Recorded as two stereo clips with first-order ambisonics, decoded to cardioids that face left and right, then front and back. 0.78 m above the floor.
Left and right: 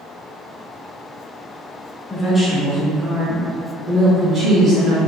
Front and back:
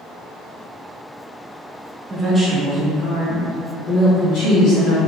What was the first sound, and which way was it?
A woman speaking, 155° left.